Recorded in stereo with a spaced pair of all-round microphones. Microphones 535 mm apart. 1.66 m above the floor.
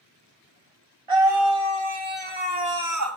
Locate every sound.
1.1 s a scream: 80° right, 2 m; by 3.2 s 25° right (ahead or behind), 1.1 m